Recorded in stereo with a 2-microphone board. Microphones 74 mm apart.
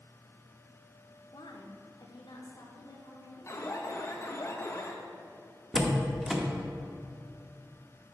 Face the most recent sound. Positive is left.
turn(degrees=-5)  # may be behind; listen again after turning